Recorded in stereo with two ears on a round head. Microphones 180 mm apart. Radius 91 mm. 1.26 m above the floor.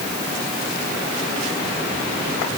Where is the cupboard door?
No cupboard door in this recording.